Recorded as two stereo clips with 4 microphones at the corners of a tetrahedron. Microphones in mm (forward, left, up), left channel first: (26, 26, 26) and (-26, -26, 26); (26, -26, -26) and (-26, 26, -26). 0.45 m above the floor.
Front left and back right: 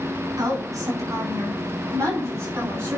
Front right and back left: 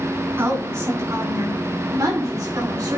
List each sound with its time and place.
0.4 s a woman speaking: 170° right, 4.5 m; by 3.0 s 170° left, 5.5 m